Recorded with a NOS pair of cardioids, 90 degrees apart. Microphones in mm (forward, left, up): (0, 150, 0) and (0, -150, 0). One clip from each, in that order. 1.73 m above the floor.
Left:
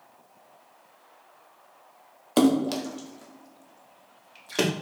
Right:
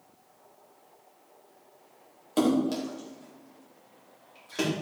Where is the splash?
50° left, 1.2 m.